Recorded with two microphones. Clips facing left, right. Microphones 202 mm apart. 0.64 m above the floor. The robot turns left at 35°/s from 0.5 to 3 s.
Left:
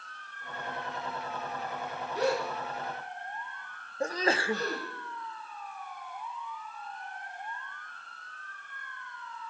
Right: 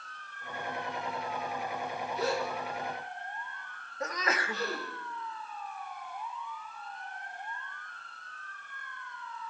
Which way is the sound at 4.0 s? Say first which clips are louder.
Left 5 dB; 30° left (ahead or behind).